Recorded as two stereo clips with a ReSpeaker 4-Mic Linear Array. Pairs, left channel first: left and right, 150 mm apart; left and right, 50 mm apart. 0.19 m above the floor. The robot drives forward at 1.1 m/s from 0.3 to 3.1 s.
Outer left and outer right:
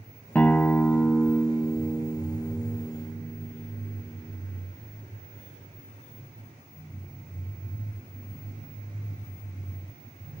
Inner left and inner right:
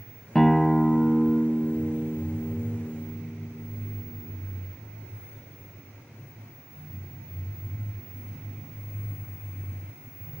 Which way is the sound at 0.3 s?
10° left (ahead or behind).